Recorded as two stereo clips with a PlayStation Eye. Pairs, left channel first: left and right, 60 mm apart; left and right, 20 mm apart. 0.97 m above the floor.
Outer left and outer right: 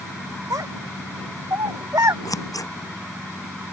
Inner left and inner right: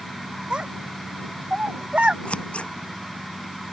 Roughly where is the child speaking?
Right.